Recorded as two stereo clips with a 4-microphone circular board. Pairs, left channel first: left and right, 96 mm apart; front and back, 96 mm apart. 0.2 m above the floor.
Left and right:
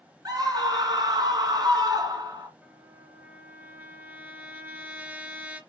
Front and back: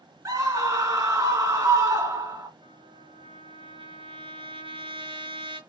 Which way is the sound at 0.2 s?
130° right.